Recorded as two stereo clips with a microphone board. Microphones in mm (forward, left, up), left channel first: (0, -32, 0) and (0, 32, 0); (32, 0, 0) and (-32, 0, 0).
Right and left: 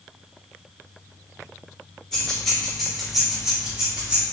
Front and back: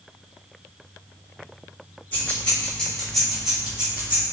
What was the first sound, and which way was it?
Keys jangling, 20° right.